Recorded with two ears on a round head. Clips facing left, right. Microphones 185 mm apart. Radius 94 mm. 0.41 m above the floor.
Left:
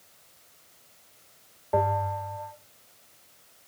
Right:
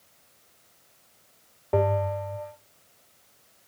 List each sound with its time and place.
1.7 s a bell: 45° right (ahead or behind), 0.6 m